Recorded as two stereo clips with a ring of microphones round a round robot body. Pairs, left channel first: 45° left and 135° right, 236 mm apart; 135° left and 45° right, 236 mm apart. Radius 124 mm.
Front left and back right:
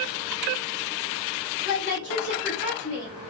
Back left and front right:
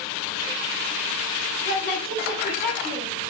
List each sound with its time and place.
1.6 s a woman speaking: 85° left, 3 m